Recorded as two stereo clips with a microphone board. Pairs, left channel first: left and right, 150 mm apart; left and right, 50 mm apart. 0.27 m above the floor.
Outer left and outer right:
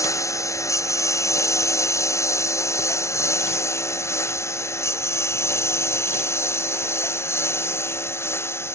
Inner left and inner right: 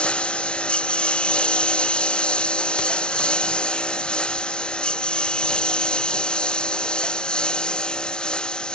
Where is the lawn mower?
20° left (ahead or behind); by 8.8 s 15° left (ahead or behind).